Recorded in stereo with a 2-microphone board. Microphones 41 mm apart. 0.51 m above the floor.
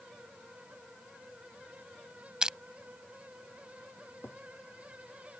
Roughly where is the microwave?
No microwave in this recording.